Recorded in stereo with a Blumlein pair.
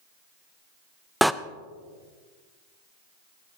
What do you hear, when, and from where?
1.2 s a door slam: straight ahead, 0.5 m